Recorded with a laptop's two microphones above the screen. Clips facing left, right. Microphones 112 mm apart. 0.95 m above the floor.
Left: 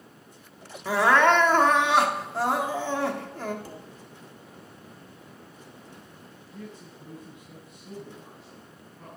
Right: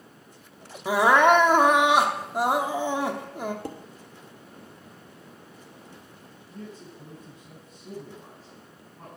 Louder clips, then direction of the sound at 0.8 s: Right 2 dB; 15° right (ahead or behind).